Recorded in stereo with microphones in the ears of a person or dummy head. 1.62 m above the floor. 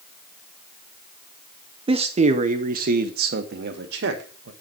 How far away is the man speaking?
About 0.9 m.